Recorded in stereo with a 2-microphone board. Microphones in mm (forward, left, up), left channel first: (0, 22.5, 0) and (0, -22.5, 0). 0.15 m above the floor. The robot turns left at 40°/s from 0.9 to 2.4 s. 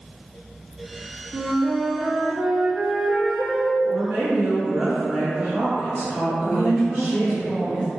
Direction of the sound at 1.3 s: 135° right.